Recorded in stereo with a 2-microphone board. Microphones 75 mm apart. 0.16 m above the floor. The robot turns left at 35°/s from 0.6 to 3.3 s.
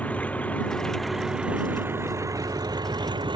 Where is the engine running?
15° left; by 3.4 s 80° right.